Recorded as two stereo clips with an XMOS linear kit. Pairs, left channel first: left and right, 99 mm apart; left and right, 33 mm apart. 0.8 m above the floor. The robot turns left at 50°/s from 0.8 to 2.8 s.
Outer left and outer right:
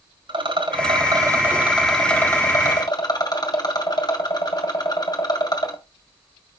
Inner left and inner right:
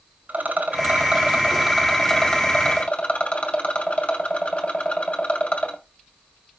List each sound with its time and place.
0.3 s a rattle: 125° right, 1.6 m; by 5.8 s 135° left, 1.6 m